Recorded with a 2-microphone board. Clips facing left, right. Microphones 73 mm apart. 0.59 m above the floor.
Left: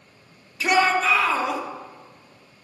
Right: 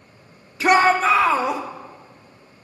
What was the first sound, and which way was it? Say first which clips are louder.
A shout: right 4 dB; 40° right (ahead or behind).